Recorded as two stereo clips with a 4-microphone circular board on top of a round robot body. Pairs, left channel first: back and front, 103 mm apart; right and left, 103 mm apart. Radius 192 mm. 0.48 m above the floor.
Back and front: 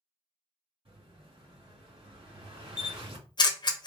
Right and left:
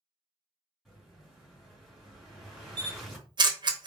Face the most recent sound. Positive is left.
turn(degrees=135)